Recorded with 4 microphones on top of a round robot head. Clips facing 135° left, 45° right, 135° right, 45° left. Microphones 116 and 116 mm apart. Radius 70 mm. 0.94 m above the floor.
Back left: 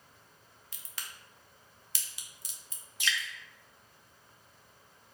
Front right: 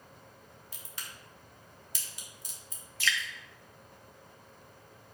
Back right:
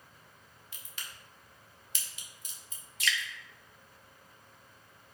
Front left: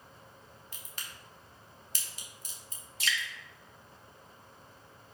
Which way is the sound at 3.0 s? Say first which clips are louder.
Front right 2 dB, back right 1 dB; 75° left.